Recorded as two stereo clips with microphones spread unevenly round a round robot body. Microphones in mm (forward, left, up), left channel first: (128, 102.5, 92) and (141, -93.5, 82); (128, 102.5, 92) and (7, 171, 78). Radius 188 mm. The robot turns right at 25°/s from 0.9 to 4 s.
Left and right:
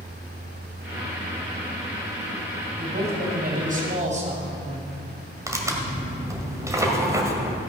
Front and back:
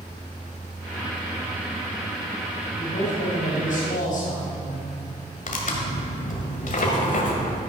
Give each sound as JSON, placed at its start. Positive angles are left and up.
{"t": 2.8, "sound": "a man speaking", "azimuth_deg": -65, "distance_m": 3.0}
{"t": 5.5, "sound": "tearing paper", "azimuth_deg": -15, "distance_m": 1.8}